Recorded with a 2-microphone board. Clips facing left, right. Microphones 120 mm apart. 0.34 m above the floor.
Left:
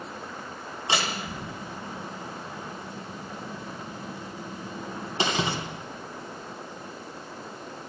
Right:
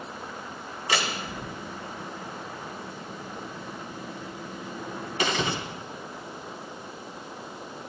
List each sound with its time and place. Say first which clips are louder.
0.9 s a door slam: even; 25° left (ahead or behind), 2.5 m